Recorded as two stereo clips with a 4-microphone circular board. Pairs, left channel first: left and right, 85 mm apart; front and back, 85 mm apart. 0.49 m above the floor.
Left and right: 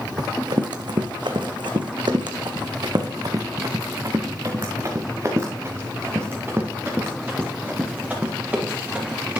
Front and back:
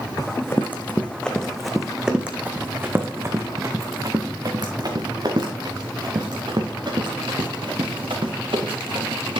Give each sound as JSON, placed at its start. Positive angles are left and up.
{"t": 0.2, "sound": "running footsteps", "azimuth_deg": -55, "distance_m": 1.5}